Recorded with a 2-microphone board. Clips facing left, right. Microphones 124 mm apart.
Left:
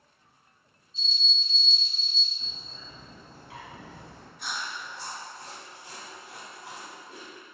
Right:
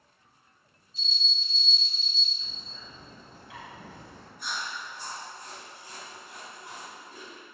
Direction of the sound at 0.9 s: 20° left (ahead or behind).